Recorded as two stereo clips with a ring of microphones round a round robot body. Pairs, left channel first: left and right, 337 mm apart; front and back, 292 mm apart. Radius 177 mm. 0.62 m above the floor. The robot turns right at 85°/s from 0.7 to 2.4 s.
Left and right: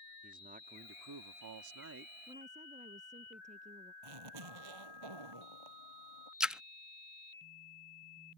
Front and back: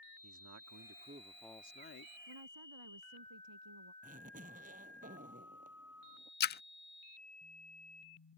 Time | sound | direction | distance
0.2 | a man speaking | 155° right | ?
2.3 | a woman speaking | 170° right | ?
4.0 | a zipper | 110° right | ?
6.4 | a splash | 5° right | ?